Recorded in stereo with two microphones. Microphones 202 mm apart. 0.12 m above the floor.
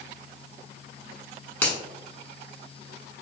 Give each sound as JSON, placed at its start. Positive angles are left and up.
{"t": 1.6, "sound": "a finger snap", "side_deg": 10, "distance_m": 1.0}